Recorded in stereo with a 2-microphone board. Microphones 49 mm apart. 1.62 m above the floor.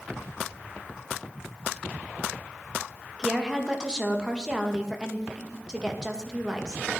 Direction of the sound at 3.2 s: 15° right (ahead or behind).